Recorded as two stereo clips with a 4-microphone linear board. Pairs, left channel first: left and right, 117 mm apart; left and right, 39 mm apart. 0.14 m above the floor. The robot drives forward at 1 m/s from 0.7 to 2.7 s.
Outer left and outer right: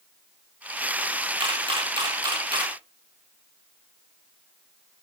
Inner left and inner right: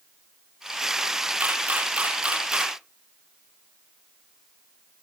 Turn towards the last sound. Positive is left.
turn(degrees=-35)  # may be behind; listen again after turning